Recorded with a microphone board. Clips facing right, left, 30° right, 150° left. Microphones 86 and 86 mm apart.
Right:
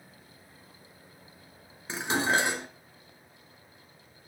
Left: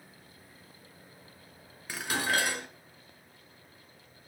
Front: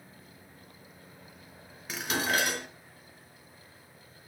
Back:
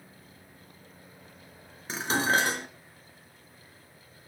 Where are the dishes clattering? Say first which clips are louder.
Right 4 dB, back 4 dB; 155° right, 2 m.